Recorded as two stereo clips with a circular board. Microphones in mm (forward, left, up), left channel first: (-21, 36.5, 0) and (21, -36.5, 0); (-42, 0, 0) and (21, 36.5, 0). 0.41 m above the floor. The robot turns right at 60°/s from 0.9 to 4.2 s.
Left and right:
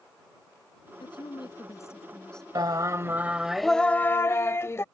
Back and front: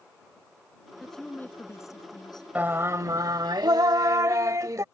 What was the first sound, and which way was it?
A woman speaking, 120° left.